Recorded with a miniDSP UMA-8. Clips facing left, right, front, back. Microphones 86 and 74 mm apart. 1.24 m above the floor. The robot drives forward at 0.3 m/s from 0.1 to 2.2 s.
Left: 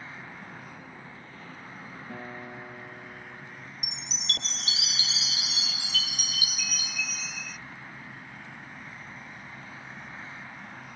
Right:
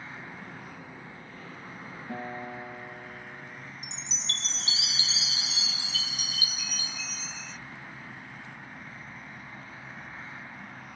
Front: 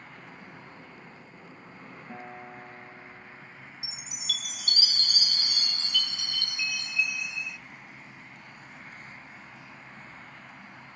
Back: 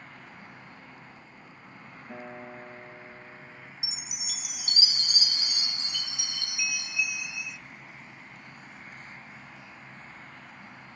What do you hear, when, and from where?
2.1 s a guitar: 95° right, 2.5 m
3.8 s a chime: 120° right, 0.6 m